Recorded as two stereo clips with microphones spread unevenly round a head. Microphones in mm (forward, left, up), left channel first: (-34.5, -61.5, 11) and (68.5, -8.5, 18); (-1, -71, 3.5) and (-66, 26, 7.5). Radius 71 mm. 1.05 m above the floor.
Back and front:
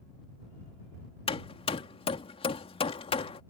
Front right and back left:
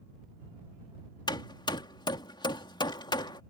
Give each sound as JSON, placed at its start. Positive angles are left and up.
{"t": 1.3, "sound": "hammering", "azimuth_deg": -110}